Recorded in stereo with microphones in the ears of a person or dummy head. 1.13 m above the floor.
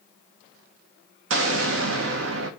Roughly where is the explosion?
Right.